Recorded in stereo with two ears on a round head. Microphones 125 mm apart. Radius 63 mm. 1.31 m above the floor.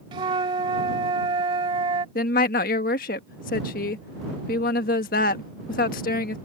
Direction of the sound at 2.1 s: 70° left (ahead or behind).